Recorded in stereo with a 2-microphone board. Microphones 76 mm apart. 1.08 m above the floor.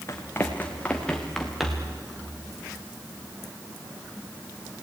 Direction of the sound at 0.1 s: 35° left (ahead or behind).